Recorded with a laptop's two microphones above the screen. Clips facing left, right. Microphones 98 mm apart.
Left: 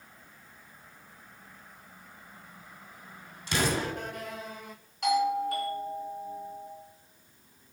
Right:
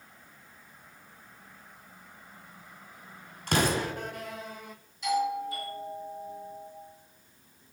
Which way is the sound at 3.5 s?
55° right (ahead or behind).